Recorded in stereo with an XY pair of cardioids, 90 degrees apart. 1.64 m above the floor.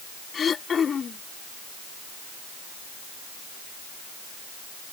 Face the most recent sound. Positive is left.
turn(degrees=50)